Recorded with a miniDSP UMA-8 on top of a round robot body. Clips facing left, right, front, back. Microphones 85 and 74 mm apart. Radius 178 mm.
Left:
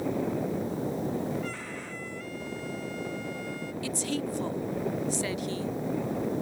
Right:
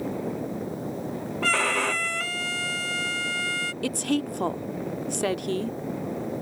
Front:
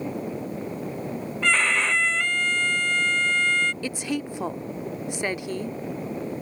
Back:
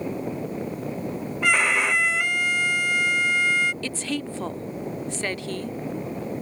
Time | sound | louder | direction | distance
1.4 | a violin | right 12 dB, back 1 dB | 100° right | ?
3.8 | a woman speaking | right 6 dB, front 1 dB | 75° right | ?